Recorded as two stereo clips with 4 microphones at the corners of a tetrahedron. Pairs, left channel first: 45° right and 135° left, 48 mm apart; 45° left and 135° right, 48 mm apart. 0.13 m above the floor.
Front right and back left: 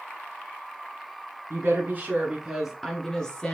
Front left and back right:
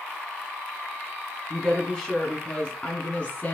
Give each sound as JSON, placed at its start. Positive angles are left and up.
{"t": 1.5, "sound": "a woman speaking", "azimuth_deg": 135, "distance_m": 1.7}